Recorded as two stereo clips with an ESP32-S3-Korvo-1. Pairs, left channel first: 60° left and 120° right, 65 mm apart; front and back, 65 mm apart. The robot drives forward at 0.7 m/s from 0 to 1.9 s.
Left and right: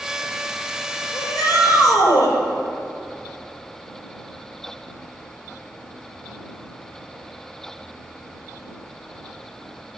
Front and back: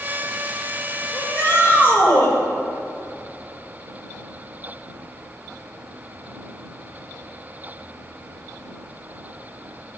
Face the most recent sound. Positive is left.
turn(degrees=55)